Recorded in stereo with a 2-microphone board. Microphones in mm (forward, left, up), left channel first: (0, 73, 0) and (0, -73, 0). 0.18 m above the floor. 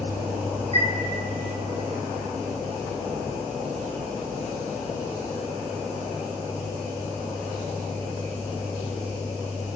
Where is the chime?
40° right (ahead or behind), 5.5 m.